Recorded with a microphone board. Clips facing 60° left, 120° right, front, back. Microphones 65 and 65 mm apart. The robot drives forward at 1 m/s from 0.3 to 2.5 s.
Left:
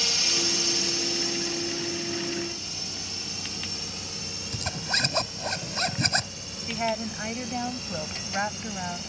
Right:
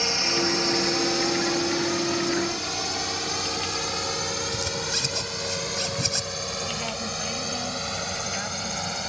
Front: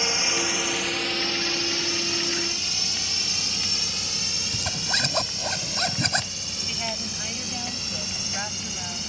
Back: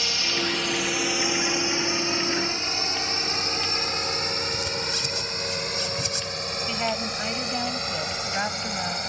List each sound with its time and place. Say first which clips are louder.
0.0 s a drone: right 6 dB, front 1 dB; 65° right; by 9.1 s 145° right
4.5 s a zipper: right 1 dB, even; 25° left
6.7 s a woman speaking: left 2 dB, back 5 dB; 115° left